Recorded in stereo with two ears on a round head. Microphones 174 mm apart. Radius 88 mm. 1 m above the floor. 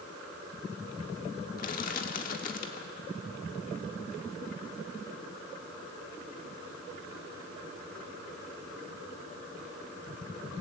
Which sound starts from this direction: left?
Crushing, at 1.6 s.